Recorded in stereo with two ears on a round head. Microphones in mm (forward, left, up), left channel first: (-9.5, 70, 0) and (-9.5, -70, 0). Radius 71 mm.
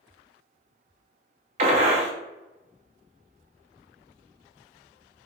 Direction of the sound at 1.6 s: 40° right (ahead or behind).